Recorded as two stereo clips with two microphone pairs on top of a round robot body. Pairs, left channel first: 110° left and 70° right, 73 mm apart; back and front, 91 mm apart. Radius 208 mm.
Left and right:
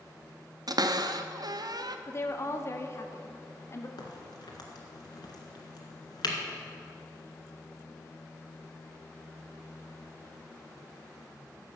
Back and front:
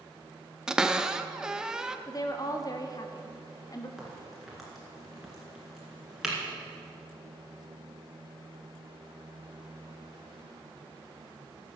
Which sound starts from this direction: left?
A crack, at 4.0 s.